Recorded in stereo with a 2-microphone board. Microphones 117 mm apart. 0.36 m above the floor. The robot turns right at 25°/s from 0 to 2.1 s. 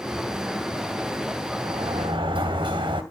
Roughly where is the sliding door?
Right.